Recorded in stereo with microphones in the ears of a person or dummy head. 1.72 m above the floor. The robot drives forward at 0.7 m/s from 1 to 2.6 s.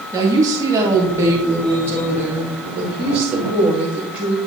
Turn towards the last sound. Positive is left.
turn(degrees=-10)  # may be behind; listen again after turning